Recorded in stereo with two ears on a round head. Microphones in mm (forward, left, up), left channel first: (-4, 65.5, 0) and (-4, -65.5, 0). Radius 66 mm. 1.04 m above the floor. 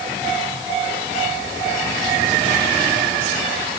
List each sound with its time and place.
Only background noise.